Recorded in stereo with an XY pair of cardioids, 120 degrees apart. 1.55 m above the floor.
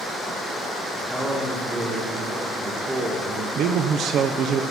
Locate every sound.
0.9 s a man speaking: 20° right, 3.5 m
3.5 s a man speaking: 60° right, 0.9 m